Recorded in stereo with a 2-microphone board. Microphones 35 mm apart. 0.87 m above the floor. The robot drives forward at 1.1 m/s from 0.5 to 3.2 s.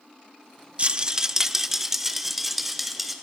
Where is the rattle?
35° right (ahead or behind), 0.6 m; by 3.1 s 5° right (ahead or behind), 3 m.